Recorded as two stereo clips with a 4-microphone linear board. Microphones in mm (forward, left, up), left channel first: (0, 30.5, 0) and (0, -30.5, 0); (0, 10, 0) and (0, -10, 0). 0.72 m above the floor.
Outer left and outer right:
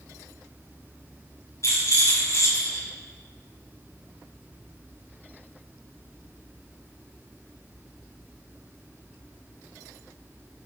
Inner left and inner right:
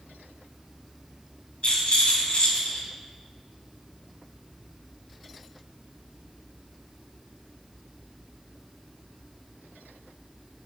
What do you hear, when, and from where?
1.6 s a rattle: 60° left (ahead or behind), 5.5 m